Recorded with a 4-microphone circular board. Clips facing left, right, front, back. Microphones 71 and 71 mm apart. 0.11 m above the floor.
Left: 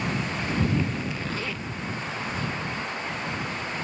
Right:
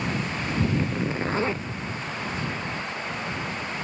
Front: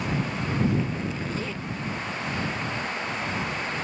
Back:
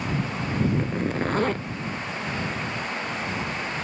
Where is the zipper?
145° right.